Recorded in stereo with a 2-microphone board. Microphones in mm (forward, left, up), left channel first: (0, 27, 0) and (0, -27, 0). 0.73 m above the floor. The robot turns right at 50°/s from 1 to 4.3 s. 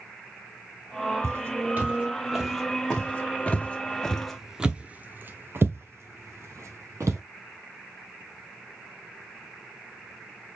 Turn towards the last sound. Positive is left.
turn(degrees=-70)  # may be behind; listen again after turning